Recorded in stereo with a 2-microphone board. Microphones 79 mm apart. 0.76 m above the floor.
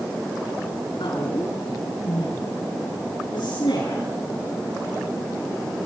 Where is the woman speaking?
80° left, 8 m; by 4.0 s 75° left (ahead or behind), 10.5 m.